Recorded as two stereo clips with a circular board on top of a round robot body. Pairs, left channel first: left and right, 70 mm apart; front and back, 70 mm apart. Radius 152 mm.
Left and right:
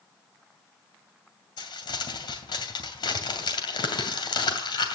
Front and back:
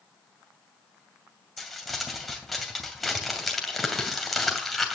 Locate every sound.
1.6 s crumpling: 90° left, 2.5 m